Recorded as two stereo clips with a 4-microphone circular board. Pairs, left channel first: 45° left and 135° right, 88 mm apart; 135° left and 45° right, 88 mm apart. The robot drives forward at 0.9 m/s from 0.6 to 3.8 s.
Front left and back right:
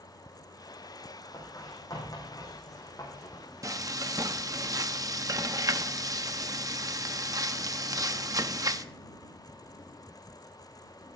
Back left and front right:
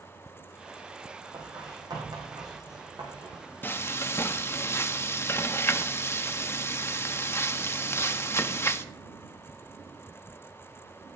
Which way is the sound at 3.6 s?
170° right.